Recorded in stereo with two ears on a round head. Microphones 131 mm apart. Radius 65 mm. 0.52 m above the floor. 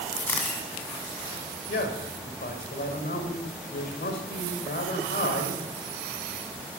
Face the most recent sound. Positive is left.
turn(degrees=65)  # may be behind; listen again after turning